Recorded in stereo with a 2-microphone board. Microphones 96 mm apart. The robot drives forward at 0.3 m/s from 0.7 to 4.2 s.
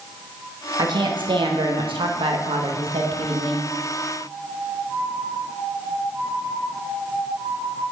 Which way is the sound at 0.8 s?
55° right (ahead or behind).